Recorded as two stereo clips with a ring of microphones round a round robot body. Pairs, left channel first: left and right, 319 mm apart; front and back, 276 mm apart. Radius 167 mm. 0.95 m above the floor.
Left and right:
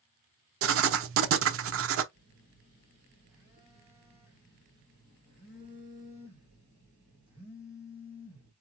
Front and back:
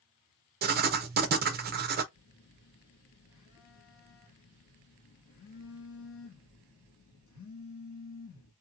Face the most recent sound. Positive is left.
turn(degrees=-5)